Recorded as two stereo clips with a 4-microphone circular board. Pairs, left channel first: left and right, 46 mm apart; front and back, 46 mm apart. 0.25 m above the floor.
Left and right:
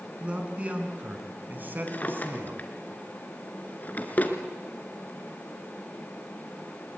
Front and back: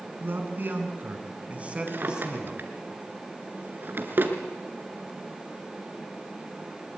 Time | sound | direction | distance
0.2 | a man speaking | 155° right | 3.5 m
1.9 | a drawer | 140° left | 2 m